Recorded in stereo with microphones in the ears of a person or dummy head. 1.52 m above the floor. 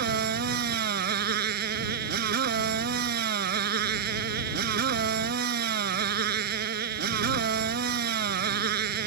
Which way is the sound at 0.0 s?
60° right (ahead or behind).